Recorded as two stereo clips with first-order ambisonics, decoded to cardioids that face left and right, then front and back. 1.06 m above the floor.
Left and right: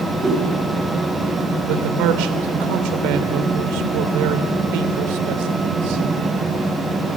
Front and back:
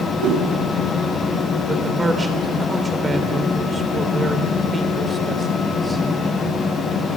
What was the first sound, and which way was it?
A whoosh, 165° right.